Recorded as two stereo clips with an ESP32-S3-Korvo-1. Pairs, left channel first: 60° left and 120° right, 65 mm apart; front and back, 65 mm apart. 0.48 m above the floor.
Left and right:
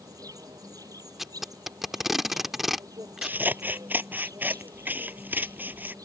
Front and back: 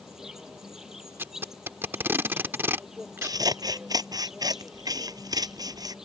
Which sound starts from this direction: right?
An insect, at 0.0 s.